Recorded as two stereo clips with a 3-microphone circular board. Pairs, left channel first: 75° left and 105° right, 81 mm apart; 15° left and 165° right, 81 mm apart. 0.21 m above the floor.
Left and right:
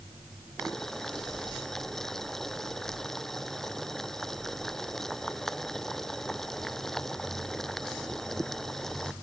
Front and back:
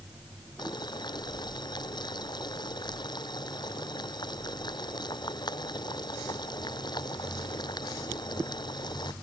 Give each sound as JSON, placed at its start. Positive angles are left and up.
{"t": 0.6, "sound": "boiling", "azimuth_deg": -10}